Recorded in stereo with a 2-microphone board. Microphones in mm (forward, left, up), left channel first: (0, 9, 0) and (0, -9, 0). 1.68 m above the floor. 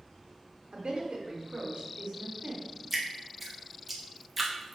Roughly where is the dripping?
Centre.